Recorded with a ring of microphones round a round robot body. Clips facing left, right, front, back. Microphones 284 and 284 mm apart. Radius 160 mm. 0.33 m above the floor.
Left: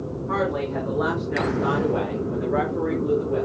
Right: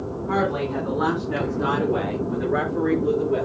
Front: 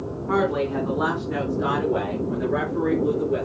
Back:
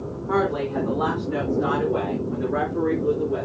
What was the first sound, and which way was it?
A woman speaking, 55° right.